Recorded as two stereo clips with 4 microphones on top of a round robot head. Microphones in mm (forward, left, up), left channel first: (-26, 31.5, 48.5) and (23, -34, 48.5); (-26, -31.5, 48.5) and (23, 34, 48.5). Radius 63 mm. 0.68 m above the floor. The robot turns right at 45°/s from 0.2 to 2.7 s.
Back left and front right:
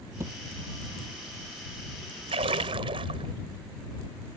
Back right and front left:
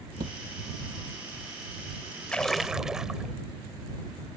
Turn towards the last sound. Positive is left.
turn(degrees=-30)